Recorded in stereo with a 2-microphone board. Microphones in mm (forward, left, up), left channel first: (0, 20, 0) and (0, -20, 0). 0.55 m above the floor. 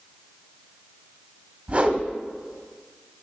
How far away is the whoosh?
About 1.4 m.